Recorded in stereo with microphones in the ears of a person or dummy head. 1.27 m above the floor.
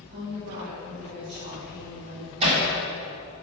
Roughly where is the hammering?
Right.